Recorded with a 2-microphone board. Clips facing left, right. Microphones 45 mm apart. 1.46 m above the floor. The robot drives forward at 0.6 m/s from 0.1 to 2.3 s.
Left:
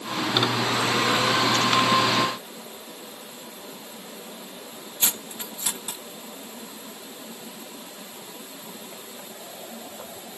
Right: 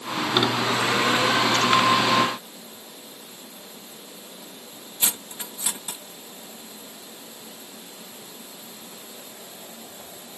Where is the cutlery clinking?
10° right (ahead or behind).